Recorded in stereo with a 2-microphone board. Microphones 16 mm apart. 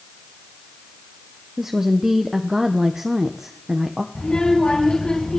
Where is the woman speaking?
30° right (ahead or behind), 1.4 m.